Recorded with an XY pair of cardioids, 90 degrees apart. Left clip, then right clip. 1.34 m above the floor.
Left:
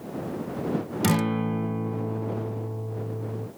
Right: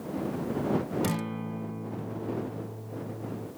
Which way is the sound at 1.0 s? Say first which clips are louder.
Left 8 dB; 60° left.